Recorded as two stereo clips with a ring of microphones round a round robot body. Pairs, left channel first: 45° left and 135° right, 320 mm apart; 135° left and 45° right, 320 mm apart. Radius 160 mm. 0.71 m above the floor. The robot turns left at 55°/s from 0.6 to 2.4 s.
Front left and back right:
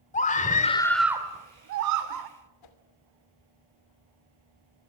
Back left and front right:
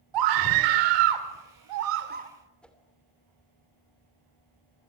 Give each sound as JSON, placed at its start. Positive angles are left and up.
{"t": 0.1, "sound": "a scream", "azimuth_deg": -25, "distance_m": 2.0}
{"t": 2.6, "sound": "a whoosh", "azimuth_deg": 50, "distance_m": 3.0}